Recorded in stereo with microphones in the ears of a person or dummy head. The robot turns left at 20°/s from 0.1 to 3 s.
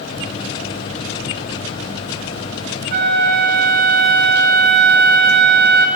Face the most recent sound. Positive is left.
turn(degrees=-50)  # may be behind; listen again after turning